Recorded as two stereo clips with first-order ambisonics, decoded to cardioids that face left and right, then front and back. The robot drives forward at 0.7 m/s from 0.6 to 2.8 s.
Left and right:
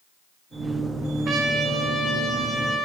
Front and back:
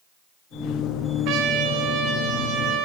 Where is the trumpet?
150° right, 0.8 m; by 2.9 s 165° right, 1.8 m.